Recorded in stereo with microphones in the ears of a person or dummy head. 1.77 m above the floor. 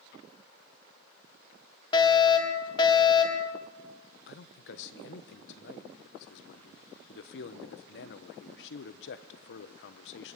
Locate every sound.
1.9 s a fire alarm: 25° left (ahead or behind), 3 m
4.3 s a man speaking: 60° left (ahead or behind), 1.0 m